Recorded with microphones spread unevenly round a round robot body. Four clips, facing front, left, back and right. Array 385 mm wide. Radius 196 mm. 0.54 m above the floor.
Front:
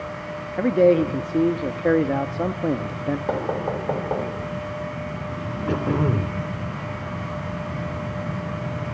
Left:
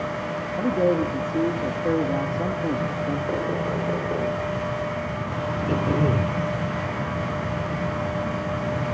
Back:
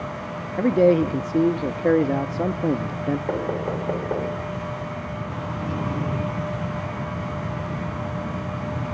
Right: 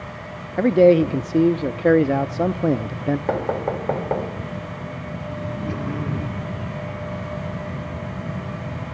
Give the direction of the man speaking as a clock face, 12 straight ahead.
3 o'clock.